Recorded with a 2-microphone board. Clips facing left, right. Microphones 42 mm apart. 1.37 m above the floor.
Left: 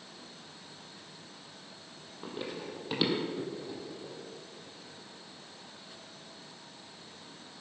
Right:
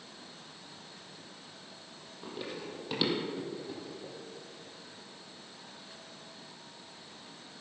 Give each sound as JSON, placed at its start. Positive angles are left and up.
{"t": 2.2, "sound": "running footsteps", "side_deg": 15, "distance_m": 2.5}